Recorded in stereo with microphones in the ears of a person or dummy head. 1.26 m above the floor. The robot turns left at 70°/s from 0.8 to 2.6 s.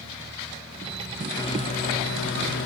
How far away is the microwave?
About 0.8 m.